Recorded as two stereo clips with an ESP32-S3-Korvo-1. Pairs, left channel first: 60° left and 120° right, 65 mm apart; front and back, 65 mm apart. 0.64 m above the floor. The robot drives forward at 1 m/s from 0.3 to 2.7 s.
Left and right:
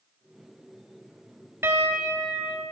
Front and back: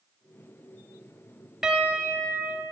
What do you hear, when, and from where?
1.6 s a piano: 105° right, 0.9 m; by 2.6 s 155° right, 1.5 m